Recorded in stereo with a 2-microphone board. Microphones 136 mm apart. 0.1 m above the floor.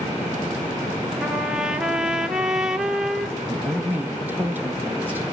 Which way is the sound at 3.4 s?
10° right (ahead or behind).